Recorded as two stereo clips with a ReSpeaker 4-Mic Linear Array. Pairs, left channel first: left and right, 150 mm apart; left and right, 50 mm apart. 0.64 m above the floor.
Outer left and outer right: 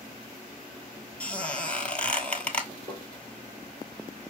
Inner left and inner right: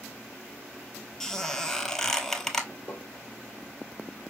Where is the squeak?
10° left (ahead or behind), 0.8 m.